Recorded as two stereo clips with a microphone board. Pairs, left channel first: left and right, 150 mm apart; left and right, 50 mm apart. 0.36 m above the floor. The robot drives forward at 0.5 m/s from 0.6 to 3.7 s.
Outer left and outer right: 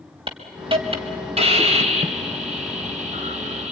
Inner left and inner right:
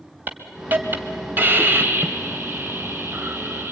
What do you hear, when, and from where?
0.3 s a hiss: 35° right (ahead or behind), 2 m; by 3.7 s 50° right (ahead or behind), 1.6 m